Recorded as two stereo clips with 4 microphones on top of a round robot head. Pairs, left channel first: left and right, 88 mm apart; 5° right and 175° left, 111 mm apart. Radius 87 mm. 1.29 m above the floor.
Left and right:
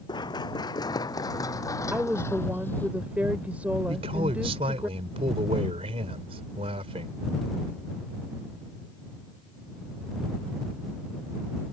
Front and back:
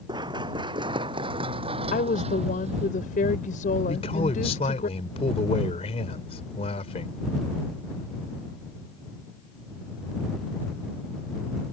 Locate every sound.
0.1 s running footsteps: 125° left; by 2.9 s 160° left
1.9 s a woman speaking: 10° right
3.9 s a man speaking: 50° right